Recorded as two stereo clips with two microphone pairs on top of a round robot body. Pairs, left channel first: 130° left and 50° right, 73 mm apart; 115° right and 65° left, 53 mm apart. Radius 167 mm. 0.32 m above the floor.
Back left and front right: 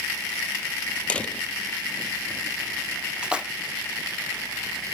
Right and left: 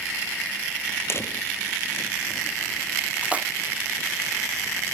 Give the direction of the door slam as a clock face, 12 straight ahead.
5 o'clock.